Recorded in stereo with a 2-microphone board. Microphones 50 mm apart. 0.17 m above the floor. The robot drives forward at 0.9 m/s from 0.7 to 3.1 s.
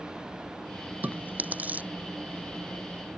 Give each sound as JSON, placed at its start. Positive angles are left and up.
{"t": 1.0, "sound": "chewing", "side_deg": -35}